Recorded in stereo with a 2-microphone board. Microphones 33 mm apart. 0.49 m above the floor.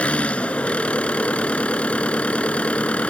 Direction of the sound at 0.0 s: 40° left (ahead or behind).